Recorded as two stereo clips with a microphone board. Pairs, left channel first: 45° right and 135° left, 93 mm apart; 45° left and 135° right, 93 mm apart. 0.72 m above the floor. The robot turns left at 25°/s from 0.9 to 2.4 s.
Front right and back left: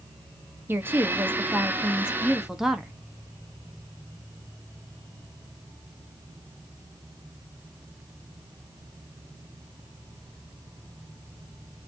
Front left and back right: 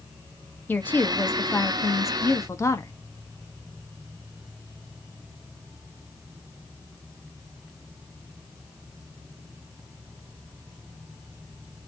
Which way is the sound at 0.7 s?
95° left.